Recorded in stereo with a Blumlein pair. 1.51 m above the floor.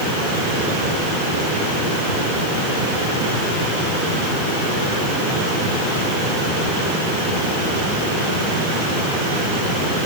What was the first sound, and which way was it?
Only background noise.